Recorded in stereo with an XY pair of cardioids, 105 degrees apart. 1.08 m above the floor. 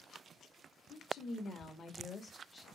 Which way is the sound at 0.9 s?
55° left.